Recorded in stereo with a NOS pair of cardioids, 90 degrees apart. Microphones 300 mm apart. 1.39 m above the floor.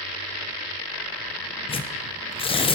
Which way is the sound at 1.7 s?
15° left.